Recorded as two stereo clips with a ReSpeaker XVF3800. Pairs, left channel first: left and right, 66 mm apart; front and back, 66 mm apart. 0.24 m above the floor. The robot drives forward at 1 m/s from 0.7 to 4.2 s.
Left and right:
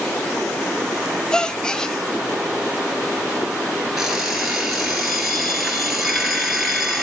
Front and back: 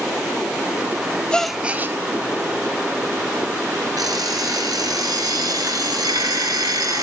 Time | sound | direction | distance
1.3 | a gasp | 35° left | 0.6 m
4.0 | an alarm clock | 175° right | 1.7 m